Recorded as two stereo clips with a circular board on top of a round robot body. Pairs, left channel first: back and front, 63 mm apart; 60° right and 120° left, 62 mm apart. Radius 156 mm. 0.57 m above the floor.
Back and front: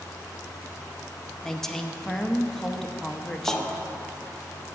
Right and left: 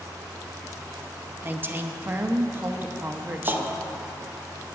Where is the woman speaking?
105° left, 0.9 m.